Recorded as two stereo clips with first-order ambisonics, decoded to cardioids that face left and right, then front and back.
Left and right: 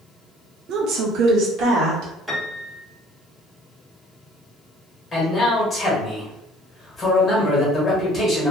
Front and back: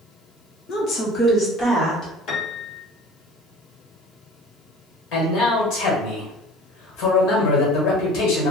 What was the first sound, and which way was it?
A woman speaking, 45° right.